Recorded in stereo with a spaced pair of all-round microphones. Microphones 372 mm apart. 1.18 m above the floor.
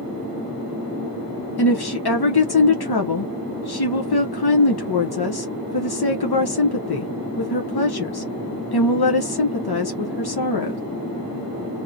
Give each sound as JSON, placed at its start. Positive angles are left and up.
{"t": 1.6, "sound": "a woman speaking", "side_deg": 75, "distance_m": 0.7}